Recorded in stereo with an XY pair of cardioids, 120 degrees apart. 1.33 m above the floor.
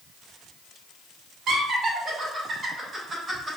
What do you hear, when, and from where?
1.5 s laughter: 60° right, 1.5 m; by 3.6 s 15° right, 2.5 m